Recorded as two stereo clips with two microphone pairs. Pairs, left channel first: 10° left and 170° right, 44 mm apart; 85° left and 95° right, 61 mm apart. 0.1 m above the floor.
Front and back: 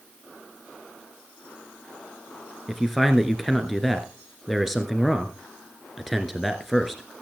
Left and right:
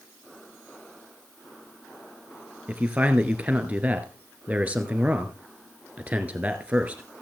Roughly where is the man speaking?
Right.